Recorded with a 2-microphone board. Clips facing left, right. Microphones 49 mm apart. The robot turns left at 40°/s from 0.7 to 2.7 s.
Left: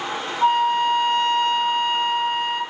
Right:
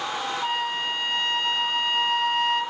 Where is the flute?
95° left, 0.8 m; by 2.6 s 20° left, 0.8 m.